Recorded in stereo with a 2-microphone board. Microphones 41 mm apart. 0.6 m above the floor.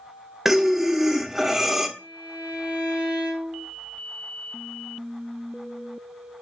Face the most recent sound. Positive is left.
turn(degrees=-80)